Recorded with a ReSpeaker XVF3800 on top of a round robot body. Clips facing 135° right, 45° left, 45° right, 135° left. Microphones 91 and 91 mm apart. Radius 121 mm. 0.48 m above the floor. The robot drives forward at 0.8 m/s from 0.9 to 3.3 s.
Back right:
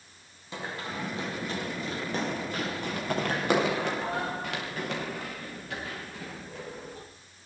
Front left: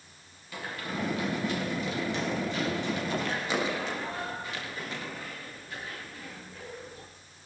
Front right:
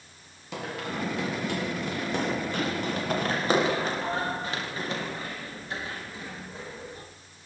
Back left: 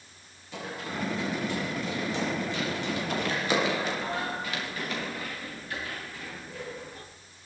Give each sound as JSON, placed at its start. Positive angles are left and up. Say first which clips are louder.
{"t": 0.5, "sound": "running footsteps", "louder": "even, front right 2 dB", "azimuth_deg": -65, "distance_m": 10.0}